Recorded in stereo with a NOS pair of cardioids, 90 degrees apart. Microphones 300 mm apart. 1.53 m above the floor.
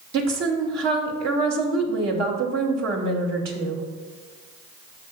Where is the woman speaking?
65° right, 2.5 m.